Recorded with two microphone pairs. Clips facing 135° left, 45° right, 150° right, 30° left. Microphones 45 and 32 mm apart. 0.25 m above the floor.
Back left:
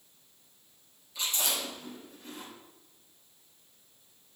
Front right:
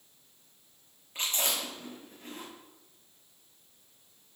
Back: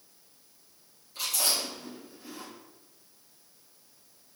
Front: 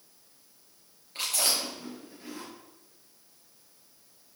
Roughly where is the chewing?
Ahead.